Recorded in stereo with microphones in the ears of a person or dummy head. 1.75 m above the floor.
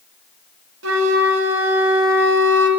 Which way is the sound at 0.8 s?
80° right.